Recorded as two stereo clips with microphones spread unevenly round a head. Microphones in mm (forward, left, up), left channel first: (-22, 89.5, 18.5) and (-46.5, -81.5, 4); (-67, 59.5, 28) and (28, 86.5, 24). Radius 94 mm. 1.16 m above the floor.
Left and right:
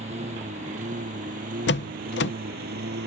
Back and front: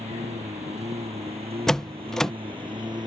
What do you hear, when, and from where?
0.0 s a lawn mower: 40° right; by 3.1 s 55° right
1.7 s a door slam: 110° left